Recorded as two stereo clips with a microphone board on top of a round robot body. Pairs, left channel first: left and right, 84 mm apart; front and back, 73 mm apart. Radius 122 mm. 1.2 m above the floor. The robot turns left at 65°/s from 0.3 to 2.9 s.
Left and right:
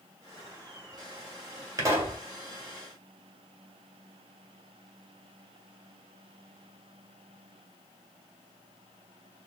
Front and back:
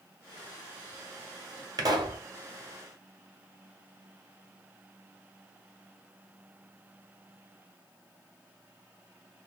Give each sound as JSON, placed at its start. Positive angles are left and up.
{"t": 1.8, "sound": "a pop", "azimuth_deg": -140, "distance_m": 1.2}